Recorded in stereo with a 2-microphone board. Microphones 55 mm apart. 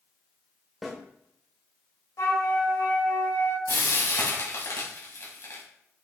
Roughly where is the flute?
Left.